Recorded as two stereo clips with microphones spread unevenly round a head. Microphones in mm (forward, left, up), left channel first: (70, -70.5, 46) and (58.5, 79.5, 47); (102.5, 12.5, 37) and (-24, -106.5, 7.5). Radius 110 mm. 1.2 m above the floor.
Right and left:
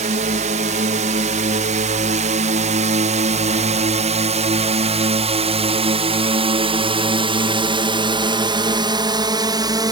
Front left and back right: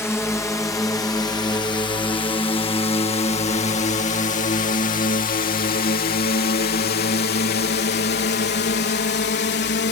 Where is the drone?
125° left; by 9.9 s 35° left.